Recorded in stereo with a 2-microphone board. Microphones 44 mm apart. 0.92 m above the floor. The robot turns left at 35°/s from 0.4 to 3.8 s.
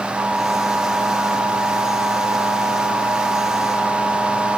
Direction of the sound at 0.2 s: 165° left.